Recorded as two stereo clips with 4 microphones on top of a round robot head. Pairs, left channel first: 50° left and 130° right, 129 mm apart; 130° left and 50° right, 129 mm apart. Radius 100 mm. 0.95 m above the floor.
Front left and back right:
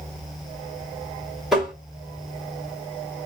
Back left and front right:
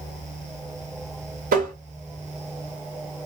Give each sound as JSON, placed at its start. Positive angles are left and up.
{"t": 1.5, "sound": "tapping", "azimuth_deg": -45, "distance_m": 1.5}